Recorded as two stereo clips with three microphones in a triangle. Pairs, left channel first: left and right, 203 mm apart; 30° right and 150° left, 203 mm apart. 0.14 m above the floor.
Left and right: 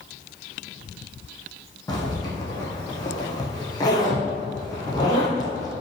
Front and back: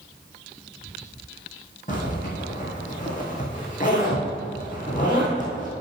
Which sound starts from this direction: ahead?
A zipper, at 1.9 s.